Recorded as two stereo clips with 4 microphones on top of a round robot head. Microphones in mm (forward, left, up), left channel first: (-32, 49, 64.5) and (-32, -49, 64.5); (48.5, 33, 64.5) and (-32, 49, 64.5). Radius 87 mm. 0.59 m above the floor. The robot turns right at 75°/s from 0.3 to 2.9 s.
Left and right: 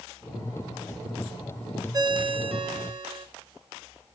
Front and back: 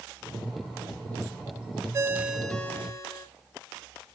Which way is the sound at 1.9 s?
135° right.